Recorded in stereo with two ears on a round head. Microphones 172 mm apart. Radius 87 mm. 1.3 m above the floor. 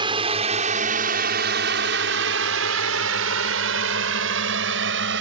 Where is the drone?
25° right (ahead or behind); by 5.2 s 70° right (ahead or behind).